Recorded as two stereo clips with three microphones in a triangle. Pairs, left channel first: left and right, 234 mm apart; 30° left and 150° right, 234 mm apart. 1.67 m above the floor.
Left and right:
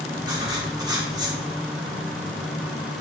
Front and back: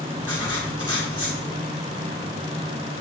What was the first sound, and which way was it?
Writing, 165° right.